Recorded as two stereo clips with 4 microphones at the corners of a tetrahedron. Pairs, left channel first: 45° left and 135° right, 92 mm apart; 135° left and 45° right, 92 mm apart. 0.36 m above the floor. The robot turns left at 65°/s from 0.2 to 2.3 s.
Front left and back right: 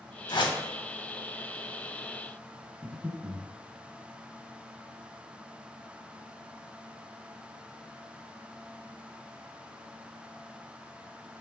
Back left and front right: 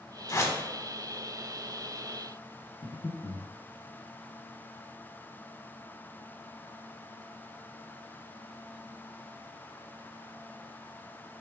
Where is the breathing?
135° left, 0.8 m.